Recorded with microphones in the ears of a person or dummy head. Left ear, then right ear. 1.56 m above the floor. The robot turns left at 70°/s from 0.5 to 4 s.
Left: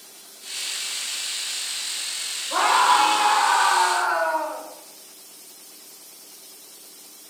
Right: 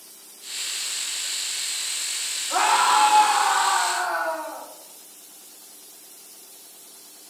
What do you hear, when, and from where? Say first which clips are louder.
2.5 s a scream: left 1 dB; 100° right, 2 m; by 4.6 s 155° left, 2 m